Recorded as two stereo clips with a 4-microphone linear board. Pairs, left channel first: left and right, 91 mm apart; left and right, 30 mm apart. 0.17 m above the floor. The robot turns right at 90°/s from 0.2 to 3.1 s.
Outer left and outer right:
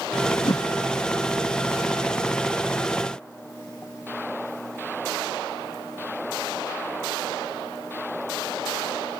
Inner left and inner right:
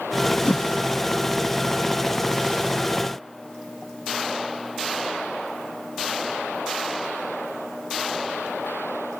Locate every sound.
0.5 s a whoosh: 55° left (ahead or behind), 0.6 m